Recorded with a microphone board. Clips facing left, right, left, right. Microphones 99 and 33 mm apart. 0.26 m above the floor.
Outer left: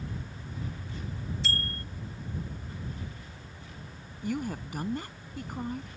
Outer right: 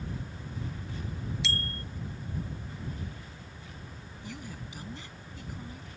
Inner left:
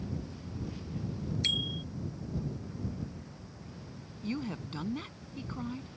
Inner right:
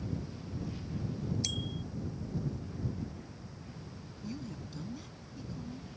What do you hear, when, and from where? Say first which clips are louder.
1.4 s a bicycle bell: outer left 1 dB, inner left 7 dB; 45° left (ahead or behind)
4.2 s a woman speaking: outer left 11 dB, inner left 6 dB; 55° left (ahead or behind)